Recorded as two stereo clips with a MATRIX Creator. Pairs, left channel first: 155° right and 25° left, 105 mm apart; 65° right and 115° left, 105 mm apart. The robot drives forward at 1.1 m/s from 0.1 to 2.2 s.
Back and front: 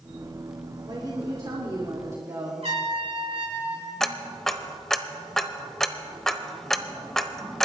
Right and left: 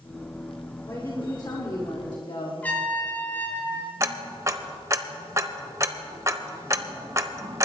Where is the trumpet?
5° left, 3.5 m.